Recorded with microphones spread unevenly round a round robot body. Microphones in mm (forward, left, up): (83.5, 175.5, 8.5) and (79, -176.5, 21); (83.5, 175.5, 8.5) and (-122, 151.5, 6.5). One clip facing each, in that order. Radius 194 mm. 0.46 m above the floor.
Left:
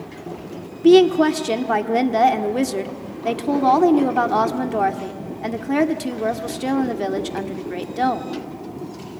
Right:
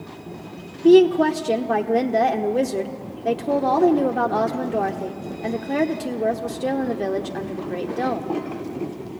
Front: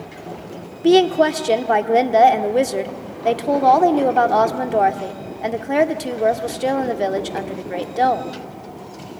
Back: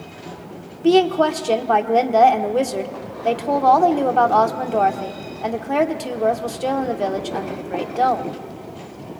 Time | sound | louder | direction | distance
0.8 | a woman speaking | left 1 dB, front 2 dB | 65° left | 1.2 m